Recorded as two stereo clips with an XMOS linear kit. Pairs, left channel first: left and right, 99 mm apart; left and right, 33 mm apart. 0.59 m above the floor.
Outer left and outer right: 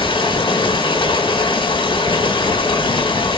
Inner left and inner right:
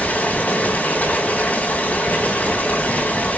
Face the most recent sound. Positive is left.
turn(degrees=60)  # may be behind; listen again after turning